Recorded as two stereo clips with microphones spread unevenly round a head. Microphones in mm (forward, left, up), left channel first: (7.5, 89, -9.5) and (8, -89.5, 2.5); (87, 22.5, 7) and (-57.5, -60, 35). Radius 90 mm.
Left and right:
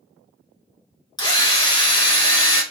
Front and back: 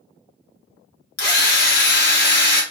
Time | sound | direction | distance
1.2 | a drill | 25° left | 1.0 m